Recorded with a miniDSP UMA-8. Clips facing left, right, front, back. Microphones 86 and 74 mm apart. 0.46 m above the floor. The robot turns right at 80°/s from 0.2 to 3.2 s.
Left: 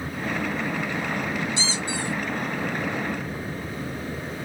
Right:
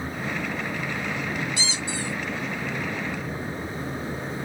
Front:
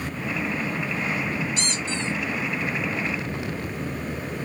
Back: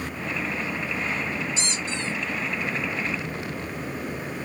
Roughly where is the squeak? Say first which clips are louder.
Left 2 dB, front 2 dB; ahead left.